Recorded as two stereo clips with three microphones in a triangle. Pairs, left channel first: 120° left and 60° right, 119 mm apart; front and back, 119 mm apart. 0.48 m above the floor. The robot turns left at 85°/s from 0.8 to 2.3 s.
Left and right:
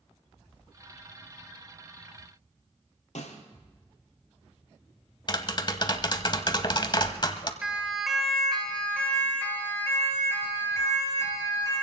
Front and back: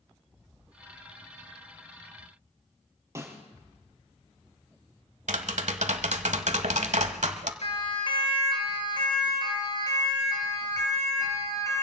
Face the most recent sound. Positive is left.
turn(degrees=65)